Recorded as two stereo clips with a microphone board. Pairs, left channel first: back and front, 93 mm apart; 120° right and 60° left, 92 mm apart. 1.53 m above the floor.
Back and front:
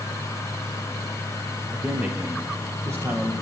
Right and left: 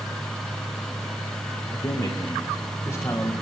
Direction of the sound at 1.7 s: 80° right.